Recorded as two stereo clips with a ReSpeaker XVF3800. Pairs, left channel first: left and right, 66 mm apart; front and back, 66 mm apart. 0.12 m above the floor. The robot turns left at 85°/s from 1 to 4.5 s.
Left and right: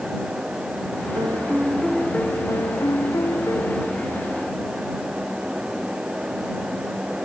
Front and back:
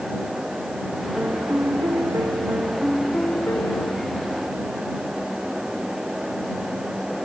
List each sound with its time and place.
1.1 s a piano: 115° right; by 4.2 s 20° right